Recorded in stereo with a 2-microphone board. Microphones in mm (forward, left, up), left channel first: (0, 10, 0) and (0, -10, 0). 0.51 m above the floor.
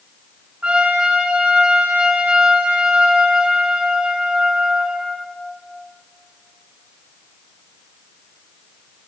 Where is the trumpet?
80° right, 4.5 m.